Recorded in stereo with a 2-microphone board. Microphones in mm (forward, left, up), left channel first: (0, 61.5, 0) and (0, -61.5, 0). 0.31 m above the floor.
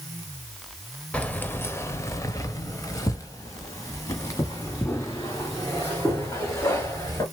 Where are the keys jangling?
10° left (ahead or behind), 0.8 m; by 7.2 s 25° left (ahead or behind), 3.5 m.